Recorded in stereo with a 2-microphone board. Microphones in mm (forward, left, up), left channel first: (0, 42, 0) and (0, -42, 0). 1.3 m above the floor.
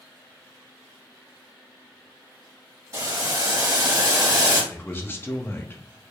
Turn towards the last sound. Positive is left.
turn(degrees=30)  # may be behind; listen again after turning